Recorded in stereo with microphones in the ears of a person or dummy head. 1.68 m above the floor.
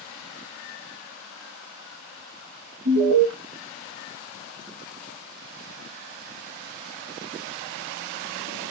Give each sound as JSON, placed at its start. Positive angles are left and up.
{"t": 2.9, "sound": "an alarm", "side_deg": -60, "distance_m": 1.0}